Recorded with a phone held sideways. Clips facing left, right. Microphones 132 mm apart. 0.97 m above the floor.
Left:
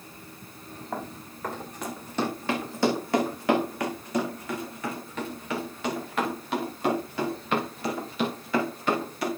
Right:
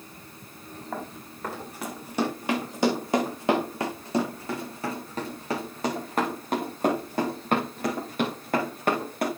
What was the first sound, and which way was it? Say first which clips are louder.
Running footsteps: left 1 dB; centre (ahead or behind).